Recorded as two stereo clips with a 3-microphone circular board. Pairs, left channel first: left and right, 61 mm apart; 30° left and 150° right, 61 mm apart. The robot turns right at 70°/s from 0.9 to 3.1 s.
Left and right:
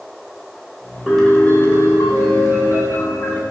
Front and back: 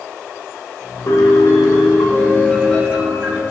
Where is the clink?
No clink in this recording.